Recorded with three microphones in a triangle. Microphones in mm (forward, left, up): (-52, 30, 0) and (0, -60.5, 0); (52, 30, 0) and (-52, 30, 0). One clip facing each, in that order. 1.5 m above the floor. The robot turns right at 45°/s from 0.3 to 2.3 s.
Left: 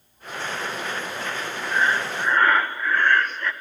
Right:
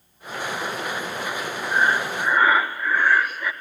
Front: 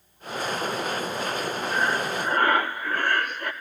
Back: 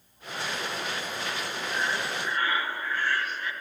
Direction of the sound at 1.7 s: 5° right.